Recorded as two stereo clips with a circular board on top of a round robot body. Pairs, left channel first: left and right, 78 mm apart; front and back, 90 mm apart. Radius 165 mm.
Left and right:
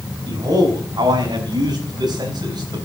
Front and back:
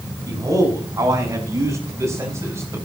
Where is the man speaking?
130° right, 5.5 m; by 2.9 s 125° right, 4.5 m.